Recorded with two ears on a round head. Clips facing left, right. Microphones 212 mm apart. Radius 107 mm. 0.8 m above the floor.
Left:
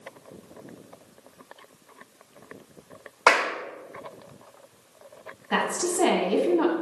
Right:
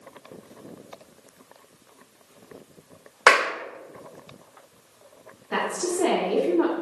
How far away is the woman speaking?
About 1.6 m.